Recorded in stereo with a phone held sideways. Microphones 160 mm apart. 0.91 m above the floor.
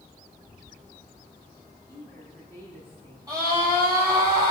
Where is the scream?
25° right (ahead or behind), 8 m.